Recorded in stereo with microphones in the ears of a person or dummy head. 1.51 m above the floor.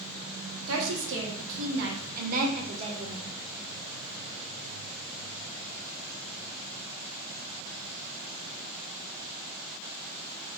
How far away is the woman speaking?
About 1.4 m.